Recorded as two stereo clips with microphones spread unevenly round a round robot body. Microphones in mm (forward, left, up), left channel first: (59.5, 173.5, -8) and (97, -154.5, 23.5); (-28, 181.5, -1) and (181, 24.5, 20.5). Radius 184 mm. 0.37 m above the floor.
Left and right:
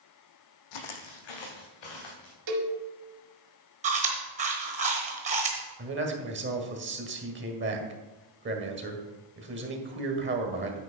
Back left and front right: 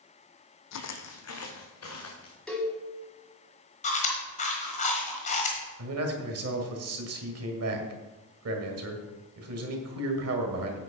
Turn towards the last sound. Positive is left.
turn(degrees=-30)